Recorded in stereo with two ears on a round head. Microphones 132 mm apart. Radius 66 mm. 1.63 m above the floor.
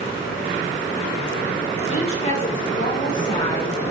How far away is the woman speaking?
About 6.5 m.